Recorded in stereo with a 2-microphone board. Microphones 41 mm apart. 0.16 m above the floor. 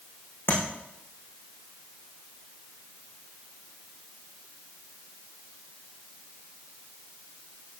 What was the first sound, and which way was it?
Tapping, 80° left.